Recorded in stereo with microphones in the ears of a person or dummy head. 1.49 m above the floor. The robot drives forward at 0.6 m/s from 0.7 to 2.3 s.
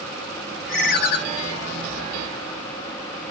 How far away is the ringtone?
About 1.1 m.